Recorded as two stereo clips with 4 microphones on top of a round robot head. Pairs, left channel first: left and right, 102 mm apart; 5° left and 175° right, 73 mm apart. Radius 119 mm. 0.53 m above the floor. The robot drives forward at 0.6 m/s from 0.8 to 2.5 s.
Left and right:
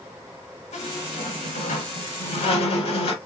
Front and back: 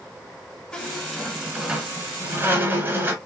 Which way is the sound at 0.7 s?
80° left.